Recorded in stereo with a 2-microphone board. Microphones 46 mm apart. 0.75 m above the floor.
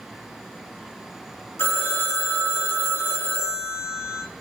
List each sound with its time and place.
1.6 s a phone ringing: 60° left (ahead or behind), 1.4 m